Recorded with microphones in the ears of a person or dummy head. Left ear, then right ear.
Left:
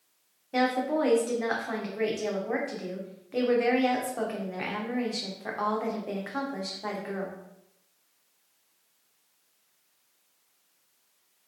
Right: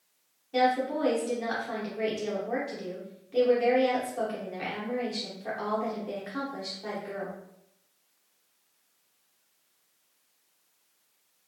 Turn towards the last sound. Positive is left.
turn(degrees=30)  # may be behind; listen again after turning